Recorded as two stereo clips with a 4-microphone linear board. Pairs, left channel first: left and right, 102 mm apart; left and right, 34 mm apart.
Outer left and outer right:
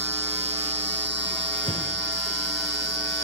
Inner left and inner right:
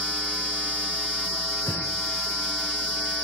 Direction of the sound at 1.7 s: 65° left (ahead or behind).